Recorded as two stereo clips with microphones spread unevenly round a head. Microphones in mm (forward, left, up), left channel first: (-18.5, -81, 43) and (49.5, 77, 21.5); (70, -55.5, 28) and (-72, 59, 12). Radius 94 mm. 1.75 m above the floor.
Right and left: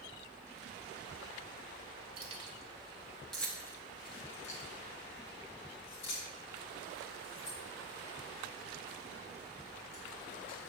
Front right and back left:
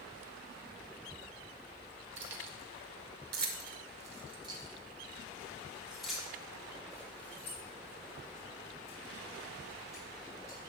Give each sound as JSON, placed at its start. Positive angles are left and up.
{"t": 2.2, "sound": "keys jangling", "azimuth_deg": 125, "distance_m": 1.6}